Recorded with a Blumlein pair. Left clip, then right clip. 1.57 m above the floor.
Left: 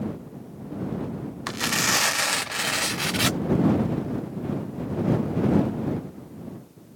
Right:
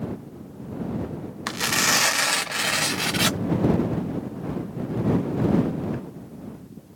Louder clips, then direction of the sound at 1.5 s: Right 2 dB; 5° right.